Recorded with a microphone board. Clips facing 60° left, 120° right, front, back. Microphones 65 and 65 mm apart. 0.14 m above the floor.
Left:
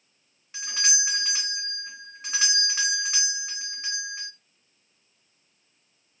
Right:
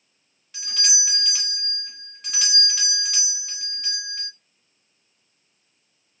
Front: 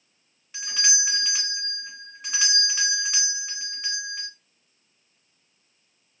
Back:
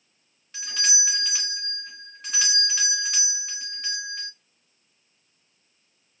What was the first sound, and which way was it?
A doorbell, 55° left.